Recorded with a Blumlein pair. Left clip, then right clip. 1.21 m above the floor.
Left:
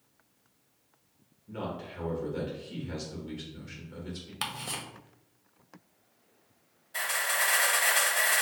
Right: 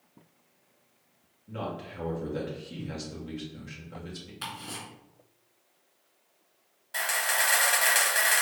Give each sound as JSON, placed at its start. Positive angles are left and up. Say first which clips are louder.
{"t": 1.5, "sound": "a man speaking", "louder": "right 1 dB", "azimuth_deg": -10, "distance_m": 2.0}
{"t": 4.4, "sound": "ticking", "louder": "left 3 dB", "azimuth_deg": 50, "distance_m": 0.9}
{"t": 6.9, "sound": "a camera shutter", "louder": "right 2 dB", "azimuth_deg": -55, "distance_m": 1.6}